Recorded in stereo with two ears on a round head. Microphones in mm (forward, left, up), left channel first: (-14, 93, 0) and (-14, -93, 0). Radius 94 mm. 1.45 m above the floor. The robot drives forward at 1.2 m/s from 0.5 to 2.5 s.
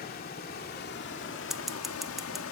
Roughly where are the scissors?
Centre.